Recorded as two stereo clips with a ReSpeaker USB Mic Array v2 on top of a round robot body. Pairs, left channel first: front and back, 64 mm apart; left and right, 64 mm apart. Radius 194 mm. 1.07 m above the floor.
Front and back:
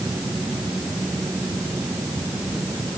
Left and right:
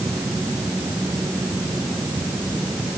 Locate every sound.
Only background noise.